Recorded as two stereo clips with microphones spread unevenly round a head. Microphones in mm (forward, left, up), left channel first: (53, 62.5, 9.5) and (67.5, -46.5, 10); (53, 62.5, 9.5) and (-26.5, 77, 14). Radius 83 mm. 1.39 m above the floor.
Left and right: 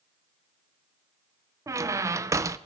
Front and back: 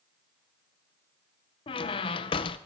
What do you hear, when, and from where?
1.7 s a squeak: 20° right, 0.5 m